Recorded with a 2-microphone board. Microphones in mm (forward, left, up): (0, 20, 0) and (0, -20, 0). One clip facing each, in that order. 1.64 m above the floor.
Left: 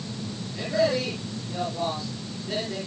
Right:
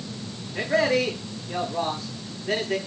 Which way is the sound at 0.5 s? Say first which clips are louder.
Right 2 dB; 55° right (ahead or behind).